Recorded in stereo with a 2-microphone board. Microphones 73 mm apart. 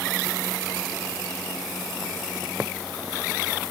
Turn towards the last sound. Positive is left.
No sound to turn to.